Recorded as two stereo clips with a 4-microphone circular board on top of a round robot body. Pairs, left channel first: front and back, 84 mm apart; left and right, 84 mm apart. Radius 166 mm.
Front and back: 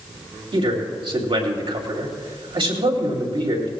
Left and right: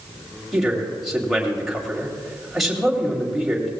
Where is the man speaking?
175° right, 3 m.